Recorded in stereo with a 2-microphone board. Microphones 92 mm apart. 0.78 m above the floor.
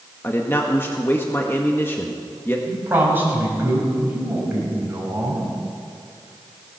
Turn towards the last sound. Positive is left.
turn(degrees=-25)  # may be behind; listen again after turning